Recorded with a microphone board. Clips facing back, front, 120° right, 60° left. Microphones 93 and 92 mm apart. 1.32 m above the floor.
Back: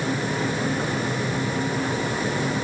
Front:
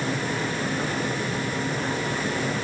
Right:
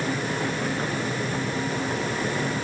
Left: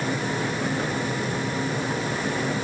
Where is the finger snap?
I don't hear a finger snap.